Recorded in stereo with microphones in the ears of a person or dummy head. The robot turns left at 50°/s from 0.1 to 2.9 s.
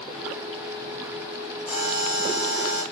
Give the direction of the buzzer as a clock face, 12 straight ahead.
7 o'clock.